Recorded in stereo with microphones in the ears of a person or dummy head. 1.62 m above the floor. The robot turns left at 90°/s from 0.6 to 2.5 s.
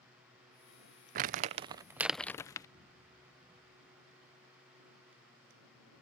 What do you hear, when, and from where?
1.1 s crumpling: 45° right (ahead or behind); by 2.7 s 20° left (ahead or behind)